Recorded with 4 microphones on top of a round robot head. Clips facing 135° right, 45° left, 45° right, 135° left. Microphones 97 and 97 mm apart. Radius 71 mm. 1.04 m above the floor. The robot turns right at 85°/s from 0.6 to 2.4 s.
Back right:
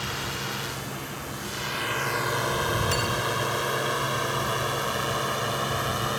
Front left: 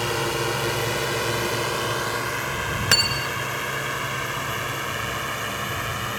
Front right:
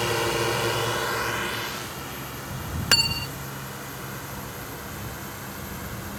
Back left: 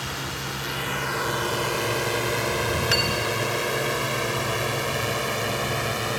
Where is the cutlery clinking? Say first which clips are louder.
Even, back left 5 dB; 10° left.